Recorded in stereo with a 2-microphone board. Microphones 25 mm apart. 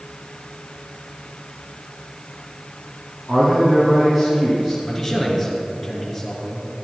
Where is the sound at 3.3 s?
25° right (ahead or behind), 2.5 m.